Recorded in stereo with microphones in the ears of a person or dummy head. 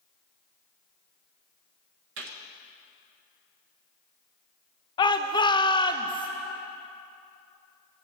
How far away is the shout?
About 0.6 m.